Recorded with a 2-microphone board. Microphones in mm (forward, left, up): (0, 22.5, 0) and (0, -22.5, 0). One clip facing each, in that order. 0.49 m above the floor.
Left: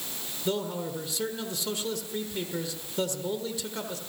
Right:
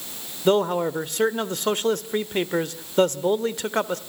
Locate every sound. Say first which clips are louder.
0.5 s a man speaking: right 11 dB; 55° right (ahead or behind), 1.3 m